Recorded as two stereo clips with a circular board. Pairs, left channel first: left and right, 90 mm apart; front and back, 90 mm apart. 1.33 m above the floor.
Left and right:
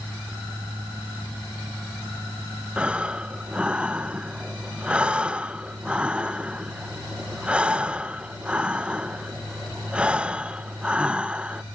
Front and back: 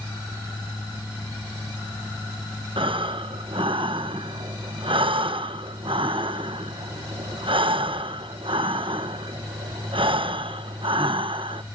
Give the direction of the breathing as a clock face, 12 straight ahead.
6 o'clock.